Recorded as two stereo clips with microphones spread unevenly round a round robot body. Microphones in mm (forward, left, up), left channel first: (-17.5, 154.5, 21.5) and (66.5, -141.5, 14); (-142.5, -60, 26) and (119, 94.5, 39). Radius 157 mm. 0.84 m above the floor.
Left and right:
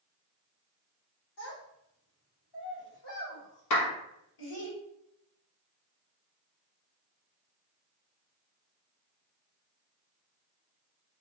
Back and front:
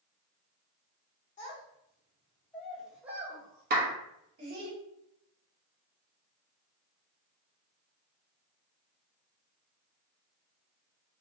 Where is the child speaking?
145° left, 1.8 m; by 4.7 s 90° left, 2 m.